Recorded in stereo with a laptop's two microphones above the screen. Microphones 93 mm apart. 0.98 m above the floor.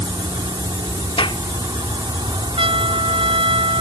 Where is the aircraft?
50° right (ahead or behind); by 3.8 s 55° right (ahead or behind).